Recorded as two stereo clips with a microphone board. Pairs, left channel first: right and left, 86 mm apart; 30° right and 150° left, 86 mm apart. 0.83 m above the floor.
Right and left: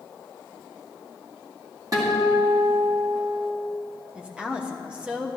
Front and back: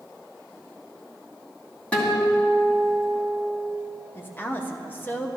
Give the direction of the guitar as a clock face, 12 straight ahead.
11 o'clock.